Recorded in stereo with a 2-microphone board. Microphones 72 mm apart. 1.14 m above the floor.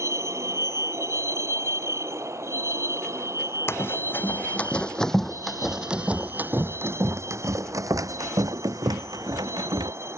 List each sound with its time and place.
0.0 s a vehicle: 45° right (ahead or behind); by 10.2 s 40° right (ahead or behind)
3.7 s running footsteps: 35° left (ahead or behind); by 9.9 s 70° right (ahead or behind)